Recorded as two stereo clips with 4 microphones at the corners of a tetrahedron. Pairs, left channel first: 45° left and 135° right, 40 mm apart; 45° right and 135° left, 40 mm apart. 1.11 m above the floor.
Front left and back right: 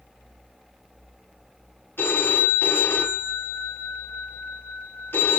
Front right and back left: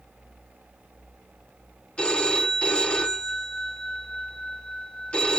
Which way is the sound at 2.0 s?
20° left.